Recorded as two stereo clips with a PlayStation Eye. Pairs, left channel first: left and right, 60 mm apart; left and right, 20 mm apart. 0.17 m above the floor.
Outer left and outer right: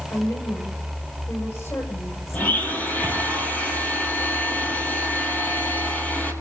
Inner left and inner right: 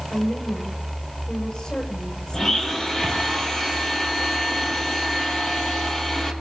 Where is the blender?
30° left (ahead or behind), 3 m.